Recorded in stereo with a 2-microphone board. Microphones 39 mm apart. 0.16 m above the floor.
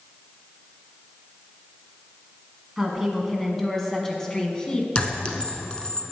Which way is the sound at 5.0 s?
25° left (ahead or behind).